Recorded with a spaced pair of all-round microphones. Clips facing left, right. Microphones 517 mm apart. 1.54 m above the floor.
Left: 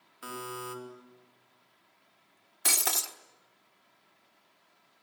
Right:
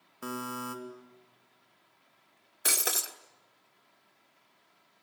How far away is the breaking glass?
About 1.2 m.